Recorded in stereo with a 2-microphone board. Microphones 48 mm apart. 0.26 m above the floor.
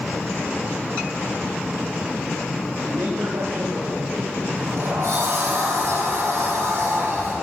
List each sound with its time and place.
2.9 s a man speaking: 80° right, 9.5 m
4.5 s a sliding door: 75° right (ahead or behind), 9 m